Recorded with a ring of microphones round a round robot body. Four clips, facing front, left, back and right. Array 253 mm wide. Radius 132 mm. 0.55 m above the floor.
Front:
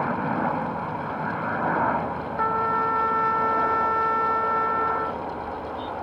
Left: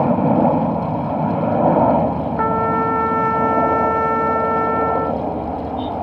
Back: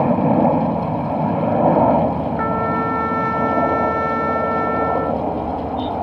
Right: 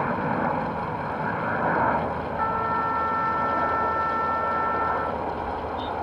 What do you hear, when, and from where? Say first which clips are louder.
0.0 s a helicopter: left 10 dB, back 10 dB; 130° left; by 6.0 s 140° left
2.4 s a trumpet: left 7 dB, front 1 dB; 105° left